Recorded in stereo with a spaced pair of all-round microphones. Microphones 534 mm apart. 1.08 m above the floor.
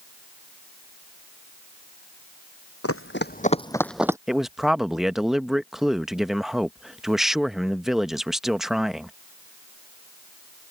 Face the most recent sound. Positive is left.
turn(degrees=0)  # may be behind; listen again after turning